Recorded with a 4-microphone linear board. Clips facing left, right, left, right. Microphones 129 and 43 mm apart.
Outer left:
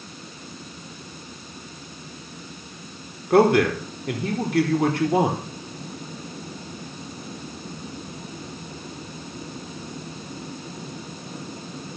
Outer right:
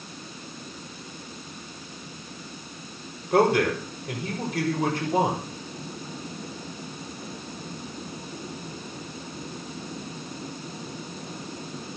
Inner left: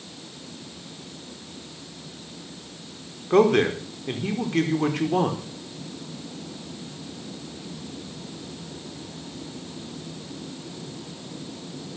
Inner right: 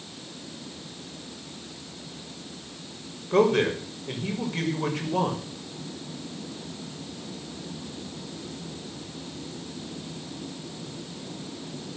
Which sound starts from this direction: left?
A man speaking, at 3.3 s.